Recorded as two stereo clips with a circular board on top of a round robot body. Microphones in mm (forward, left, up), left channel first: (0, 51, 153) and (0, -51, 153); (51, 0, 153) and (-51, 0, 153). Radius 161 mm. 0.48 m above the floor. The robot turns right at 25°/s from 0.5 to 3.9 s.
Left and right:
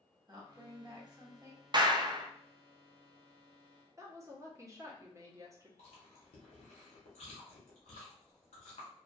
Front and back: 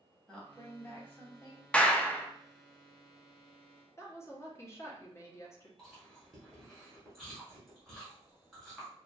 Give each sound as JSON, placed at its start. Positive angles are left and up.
{"t": 0.3, "sound": "a woman speaking", "azimuth_deg": -80, "distance_m": 1.3}
{"t": 1.7, "sound": "a clap", "azimuth_deg": -75, "distance_m": 0.6}
{"t": 4.0, "sound": "a woman speaking", "azimuth_deg": -50, "distance_m": 0.9}
{"t": 5.8, "sound": "chewing", "azimuth_deg": 90, "distance_m": 1.0}